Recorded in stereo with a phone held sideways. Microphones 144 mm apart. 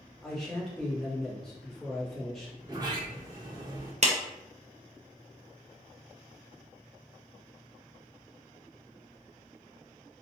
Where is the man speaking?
Centre (ahead or behind), 1.4 m.